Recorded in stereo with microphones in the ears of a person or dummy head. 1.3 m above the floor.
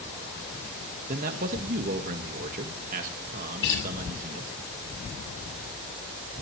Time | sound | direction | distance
1.1 | a man speaking | 40° right (ahead or behind) | 1.8 m
3.6 | a guitar | 60° left (ahead or behind) | 8 m